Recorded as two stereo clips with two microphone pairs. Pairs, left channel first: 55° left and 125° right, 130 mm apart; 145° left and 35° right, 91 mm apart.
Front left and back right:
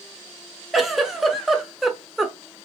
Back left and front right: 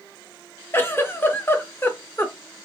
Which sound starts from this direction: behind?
A giggle, at 0.7 s.